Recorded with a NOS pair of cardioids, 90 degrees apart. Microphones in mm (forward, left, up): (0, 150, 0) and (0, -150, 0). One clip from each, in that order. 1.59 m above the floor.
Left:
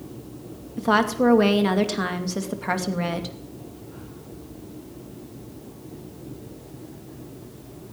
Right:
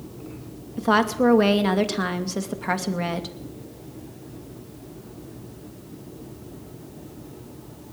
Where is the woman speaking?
Straight ahead, 2.5 m.